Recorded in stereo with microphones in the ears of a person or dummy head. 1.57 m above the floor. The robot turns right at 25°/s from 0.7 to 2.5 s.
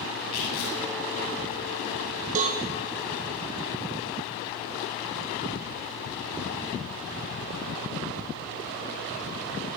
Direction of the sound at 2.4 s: 45° right (ahead or behind).